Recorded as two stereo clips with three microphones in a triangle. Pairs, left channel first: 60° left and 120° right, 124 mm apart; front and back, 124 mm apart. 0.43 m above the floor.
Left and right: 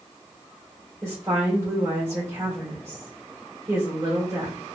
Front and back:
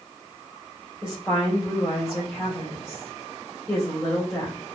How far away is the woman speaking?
About 1.7 m.